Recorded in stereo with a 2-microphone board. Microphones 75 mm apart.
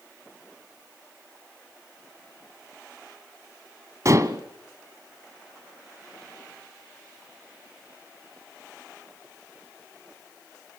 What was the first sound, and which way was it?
Dishes clattering, 45° right (ahead or behind).